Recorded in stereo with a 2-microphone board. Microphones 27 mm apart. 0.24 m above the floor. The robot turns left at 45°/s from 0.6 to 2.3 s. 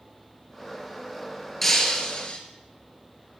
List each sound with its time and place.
1.6 s breaking glass: 170° left, 2.5 m; by 2.4 s 140° left, 2.5 m